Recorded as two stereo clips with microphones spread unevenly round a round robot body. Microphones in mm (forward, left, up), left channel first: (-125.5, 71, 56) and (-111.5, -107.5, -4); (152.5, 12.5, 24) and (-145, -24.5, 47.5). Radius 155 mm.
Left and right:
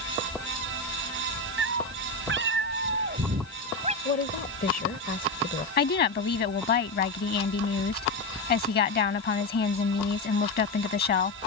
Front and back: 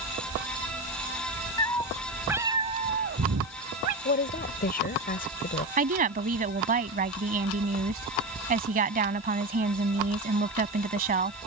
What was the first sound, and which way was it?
A cat meowing, 70° right.